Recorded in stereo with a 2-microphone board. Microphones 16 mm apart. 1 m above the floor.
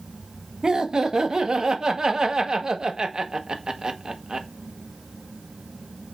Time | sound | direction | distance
0.6 | laughter | 55° right (ahead or behind) | 0.8 m